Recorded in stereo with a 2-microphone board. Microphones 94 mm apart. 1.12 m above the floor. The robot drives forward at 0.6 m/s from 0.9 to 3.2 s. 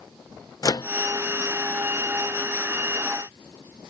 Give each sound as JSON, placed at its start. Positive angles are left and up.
{"t": 0.6, "sound": "a microwave", "side_deg": 45}